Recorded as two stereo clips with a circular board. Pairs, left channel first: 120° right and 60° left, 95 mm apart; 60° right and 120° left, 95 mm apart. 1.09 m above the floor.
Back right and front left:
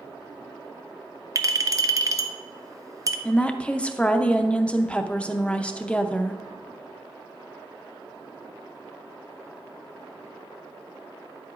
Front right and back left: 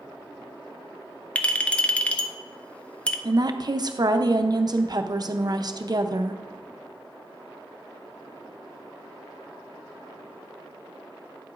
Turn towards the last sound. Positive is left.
turn(degrees=160)